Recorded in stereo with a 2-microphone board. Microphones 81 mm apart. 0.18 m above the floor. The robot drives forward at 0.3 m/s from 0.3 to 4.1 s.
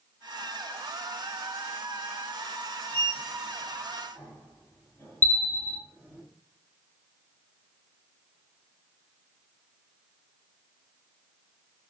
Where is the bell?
25° left (ahead or behind), 1.0 m.